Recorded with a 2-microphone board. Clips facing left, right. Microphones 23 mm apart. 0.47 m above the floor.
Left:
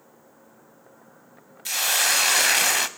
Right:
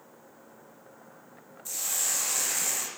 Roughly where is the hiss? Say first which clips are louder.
Left 10 dB; left.